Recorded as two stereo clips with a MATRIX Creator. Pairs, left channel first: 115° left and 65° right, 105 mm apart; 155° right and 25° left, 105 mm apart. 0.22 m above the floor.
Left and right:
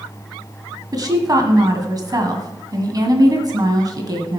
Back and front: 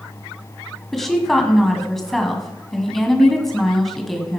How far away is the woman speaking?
About 1.7 m.